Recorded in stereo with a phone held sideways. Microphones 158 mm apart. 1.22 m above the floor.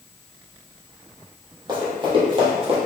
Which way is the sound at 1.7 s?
25° right (ahead or behind).